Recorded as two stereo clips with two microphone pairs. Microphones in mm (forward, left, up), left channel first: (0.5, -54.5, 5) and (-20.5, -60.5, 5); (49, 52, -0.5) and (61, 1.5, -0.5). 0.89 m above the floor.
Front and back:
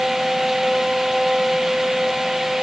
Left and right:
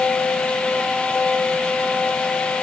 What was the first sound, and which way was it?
Only background noise.